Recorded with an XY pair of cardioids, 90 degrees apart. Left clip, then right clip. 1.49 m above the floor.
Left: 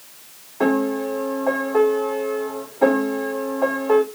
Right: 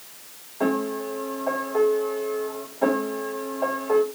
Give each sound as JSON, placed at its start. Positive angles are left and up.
{"t": 0.6, "sound": "a piano", "azimuth_deg": 60, "distance_m": 2.5}